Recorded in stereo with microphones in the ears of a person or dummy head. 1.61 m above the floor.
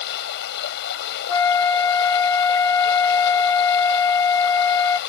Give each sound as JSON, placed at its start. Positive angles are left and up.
{"t": 0.0, "sound": "running water", "side_deg": 60}
{"t": 1.3, "sound": "a flute", "side_deg": 15}